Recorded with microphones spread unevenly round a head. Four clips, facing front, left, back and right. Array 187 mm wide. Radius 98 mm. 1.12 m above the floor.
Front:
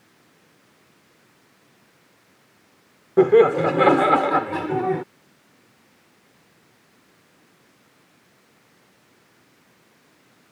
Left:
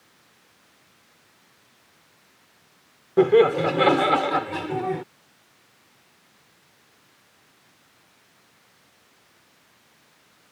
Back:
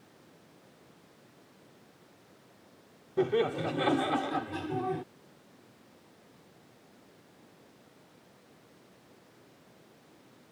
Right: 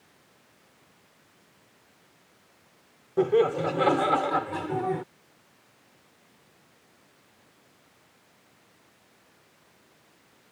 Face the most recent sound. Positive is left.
turn(degrees=0)